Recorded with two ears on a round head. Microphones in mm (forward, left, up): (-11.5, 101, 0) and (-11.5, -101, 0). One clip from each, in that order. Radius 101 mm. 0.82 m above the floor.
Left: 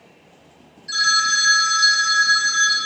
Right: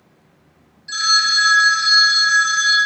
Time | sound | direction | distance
0.9 | a phone ringing | 5° left (ahead or behind) | 0.8 m